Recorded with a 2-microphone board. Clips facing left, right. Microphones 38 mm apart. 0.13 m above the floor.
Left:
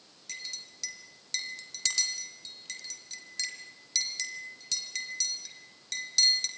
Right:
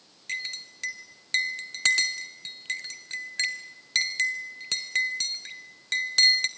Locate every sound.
0.3 s a clink: 50° right (ahead or behind), 1.3 m